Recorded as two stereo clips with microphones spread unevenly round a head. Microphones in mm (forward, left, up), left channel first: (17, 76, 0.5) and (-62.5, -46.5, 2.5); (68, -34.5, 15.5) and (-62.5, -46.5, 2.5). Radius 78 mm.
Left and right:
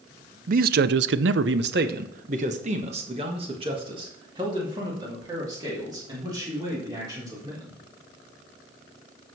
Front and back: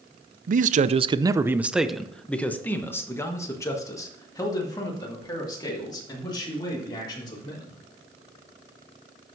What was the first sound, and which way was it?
A man speaking, 155° right.